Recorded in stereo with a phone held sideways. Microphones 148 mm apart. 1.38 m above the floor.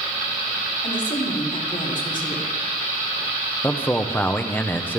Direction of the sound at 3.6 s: 15° left (ahead or behind).